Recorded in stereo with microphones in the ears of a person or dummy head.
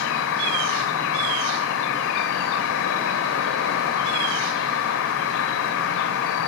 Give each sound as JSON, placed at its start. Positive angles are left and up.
{"t": 0.0, "sound": "an insect", "side_deg": 70, "distance_m": 1.3}